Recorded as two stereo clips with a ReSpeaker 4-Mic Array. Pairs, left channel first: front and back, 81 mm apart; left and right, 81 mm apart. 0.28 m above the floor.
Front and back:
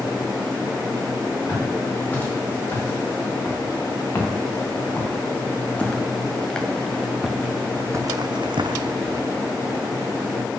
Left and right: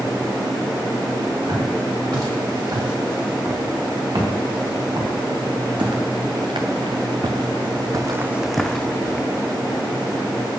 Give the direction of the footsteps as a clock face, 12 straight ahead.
2 o'clock.